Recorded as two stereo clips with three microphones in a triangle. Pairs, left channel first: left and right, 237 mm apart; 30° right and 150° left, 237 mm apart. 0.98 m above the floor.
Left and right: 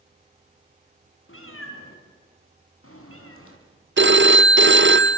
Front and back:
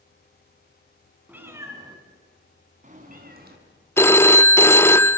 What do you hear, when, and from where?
1.3 s a cat meowing: 70° left, 4 m; by 3.6 s 105° left, 4 m
4.0 s a phone ringing: 110° right, 0.5 m